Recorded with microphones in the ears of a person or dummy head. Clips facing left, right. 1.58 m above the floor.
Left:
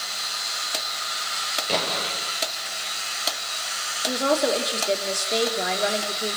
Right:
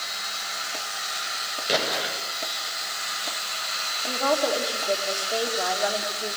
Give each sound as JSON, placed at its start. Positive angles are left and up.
{"t": 1.7, "sound": "an explosion", "side_deg": -15, "distance_m": 8.5}
{"t": 4.1, "sound": "a woman speaking", "side_deg": 25, "distance_m": 4.0}